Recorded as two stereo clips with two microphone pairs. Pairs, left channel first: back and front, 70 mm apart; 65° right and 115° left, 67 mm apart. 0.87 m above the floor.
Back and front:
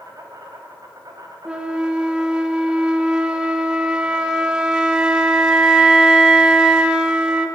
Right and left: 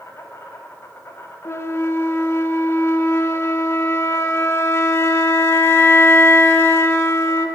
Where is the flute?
70° right, 0.8 m.